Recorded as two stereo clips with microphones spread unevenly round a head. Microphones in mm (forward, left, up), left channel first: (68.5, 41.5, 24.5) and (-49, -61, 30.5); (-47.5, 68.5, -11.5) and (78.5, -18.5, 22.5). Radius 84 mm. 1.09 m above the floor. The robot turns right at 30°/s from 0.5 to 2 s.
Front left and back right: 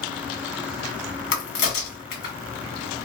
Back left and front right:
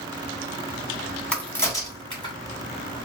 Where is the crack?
60° left, 1.2 m; by 2.4 s 80° left, 1.2 m.